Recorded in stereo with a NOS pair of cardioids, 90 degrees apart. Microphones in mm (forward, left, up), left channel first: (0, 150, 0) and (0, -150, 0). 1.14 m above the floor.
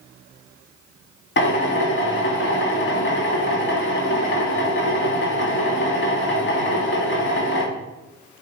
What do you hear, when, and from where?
1.4 s a drill: 40° left, 2.5 m